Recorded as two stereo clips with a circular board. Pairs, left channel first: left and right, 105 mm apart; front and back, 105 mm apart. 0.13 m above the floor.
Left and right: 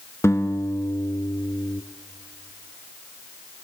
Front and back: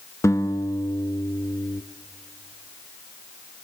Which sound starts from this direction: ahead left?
A guitar, at 0.2 s.